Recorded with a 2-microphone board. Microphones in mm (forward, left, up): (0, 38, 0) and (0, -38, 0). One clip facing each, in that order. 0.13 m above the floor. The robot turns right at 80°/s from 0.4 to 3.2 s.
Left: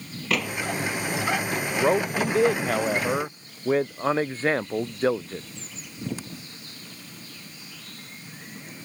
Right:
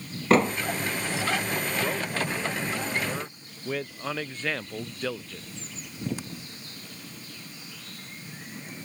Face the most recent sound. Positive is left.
turn(degrees=145)